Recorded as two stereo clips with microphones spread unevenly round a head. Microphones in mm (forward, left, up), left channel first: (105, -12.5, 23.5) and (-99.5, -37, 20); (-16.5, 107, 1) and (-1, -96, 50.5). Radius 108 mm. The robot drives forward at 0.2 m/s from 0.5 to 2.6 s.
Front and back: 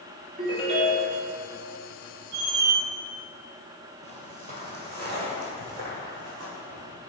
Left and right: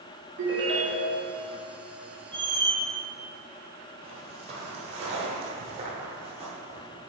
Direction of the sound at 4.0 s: 125° right.